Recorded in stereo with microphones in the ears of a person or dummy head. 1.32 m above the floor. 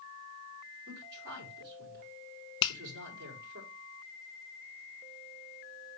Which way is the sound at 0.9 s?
65° right (ahead or behind).